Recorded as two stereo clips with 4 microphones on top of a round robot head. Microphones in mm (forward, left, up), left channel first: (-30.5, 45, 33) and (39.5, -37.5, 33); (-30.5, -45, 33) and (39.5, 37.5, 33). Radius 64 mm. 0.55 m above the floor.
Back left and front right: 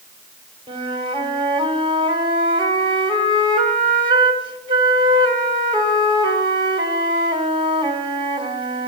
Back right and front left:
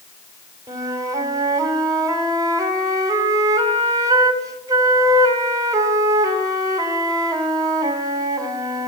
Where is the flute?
10° right, 1.9 m.